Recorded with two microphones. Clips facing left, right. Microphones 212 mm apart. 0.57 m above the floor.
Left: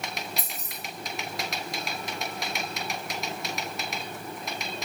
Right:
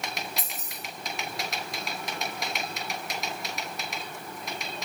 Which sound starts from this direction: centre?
Keys jangling, at 0.4 s.